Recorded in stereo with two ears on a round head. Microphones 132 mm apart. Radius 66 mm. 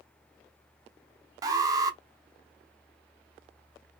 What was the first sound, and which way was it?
An alarm, 25° right (ahead or behind).